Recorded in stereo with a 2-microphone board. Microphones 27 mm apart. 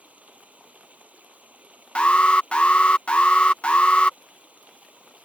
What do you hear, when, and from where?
0.0 s running water: 60° right (ahead or behind)
1.9 s an alarm: 45° left (ahead or behind)